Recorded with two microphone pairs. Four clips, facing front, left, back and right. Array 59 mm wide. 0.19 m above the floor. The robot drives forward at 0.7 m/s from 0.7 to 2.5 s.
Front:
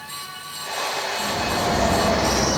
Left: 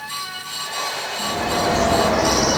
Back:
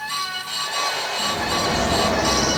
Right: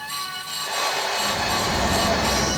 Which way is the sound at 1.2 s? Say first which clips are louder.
Left 2 dB, back 1 dB; 75° left.